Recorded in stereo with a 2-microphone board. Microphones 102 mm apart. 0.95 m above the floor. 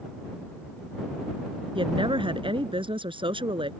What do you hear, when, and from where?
1.8 s a woman speaking: 55° right (ahead or behind)